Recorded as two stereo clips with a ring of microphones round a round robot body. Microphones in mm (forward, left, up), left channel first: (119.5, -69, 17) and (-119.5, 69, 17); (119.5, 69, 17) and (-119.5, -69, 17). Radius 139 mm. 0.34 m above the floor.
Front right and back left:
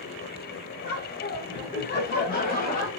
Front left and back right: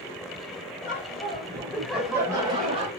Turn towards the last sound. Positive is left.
turn(degrees=-85)